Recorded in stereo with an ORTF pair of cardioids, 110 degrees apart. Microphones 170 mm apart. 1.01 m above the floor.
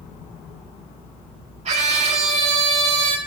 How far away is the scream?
About 2 m.